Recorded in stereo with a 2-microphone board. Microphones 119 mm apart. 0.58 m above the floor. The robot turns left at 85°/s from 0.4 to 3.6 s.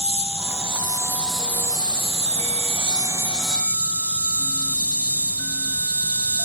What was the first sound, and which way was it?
An insect, 80° left.